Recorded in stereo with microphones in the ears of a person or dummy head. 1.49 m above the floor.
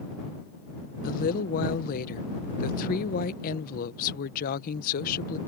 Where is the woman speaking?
50° left (ahead or behind).